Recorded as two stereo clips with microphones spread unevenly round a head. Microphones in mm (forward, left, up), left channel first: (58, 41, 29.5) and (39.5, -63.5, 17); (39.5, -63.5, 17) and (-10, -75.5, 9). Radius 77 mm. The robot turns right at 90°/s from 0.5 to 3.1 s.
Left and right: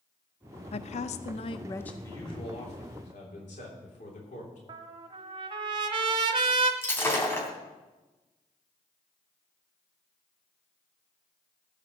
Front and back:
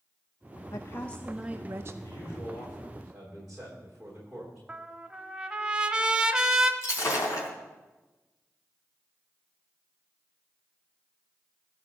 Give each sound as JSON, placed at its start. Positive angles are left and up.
{"t": 0.7, "sound": "a woman speaking", "azimuth_deg": 55, "distance_m": 0.6}
{"t": 2.0, "sound": "a man speaking", "azimuth_deg": 10, "distance_m": 3.0}
{"t": 4.7, "sound": "a trumpet", "azimuth_deg": -90, "distance_m": 0.9}
{"t": 6.8, "sound": "breaking glass", "azimuth_deg": 15, "distance_m": 3.0}